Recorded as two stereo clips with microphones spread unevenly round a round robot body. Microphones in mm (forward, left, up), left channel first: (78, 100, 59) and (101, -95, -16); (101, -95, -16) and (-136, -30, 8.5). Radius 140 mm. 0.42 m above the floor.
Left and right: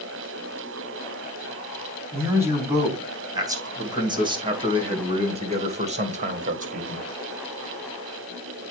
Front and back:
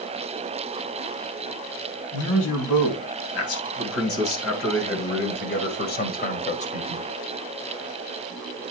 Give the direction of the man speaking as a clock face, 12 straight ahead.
12 o'clock.